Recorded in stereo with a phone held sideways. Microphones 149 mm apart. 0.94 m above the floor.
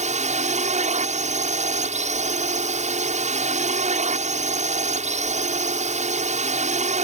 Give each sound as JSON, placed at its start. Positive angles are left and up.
{"t": 0.0, "sound": "a drone", "side_deg": -50}